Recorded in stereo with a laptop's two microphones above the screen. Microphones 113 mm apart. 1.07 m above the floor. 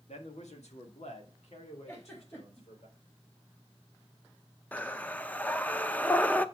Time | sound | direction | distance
0.1 | a man speaking | 80° left | 1.5 m
1.9 | a giggle | 20° left (ahead or behind) | 2.5 m
4.7 | breathing | 15° left (ahead or behind) | 0.5 m